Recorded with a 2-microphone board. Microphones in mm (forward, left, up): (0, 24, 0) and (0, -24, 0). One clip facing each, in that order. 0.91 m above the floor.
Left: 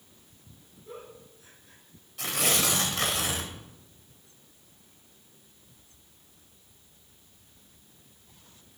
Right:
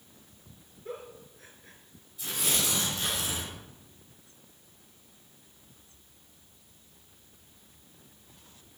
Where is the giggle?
55° right (ahead or behind), 3.5 m.